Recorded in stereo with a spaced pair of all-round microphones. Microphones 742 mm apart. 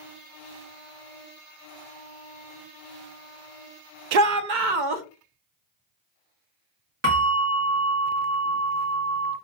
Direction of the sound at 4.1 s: 75° right (ahead or behind).